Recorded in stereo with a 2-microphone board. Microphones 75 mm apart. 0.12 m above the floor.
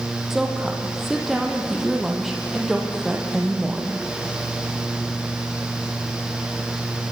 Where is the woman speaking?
5° right (ahead or behind), 3.5 m.